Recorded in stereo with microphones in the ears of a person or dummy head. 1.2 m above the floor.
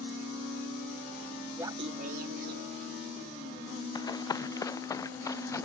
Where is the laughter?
10° right (ahead or behind); by 3.9 s 80° right.